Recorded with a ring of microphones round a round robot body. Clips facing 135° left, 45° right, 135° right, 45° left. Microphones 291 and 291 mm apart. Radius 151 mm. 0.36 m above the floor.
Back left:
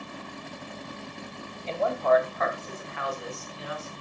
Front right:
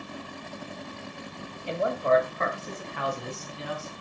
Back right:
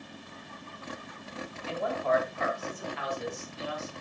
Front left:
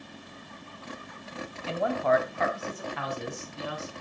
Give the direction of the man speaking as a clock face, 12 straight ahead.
11 o'clock.